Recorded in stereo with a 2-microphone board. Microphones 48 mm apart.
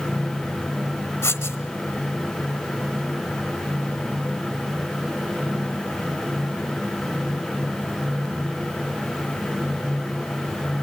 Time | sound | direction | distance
1.2 | writing | 65° left (ahead or behind) | 1.1 m